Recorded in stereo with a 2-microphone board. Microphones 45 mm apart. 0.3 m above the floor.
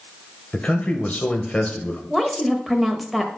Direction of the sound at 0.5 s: 30° left (ahead or behind).